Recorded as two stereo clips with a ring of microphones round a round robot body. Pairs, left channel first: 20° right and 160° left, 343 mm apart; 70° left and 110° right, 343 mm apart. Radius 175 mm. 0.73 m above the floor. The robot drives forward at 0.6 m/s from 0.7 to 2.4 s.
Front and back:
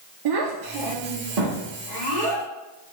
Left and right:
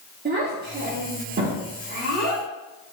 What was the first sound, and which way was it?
A child speaking, 175° right.